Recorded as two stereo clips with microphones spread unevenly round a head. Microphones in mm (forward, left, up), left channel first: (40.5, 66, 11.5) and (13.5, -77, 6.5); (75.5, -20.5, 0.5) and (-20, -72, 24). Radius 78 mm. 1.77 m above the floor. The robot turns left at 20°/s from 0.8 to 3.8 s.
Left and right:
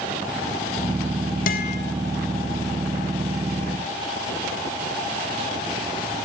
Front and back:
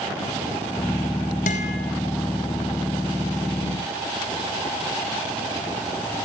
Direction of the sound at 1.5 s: 70° left.